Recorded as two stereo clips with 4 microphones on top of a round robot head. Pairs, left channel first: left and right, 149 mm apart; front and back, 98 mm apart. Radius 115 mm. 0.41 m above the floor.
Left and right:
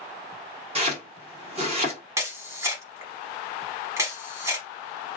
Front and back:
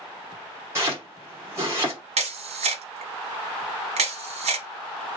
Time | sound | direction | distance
0.8 | chopping | 125° right | 1.8 m
2.2 | a camera shutter | 165° right | 0.8 m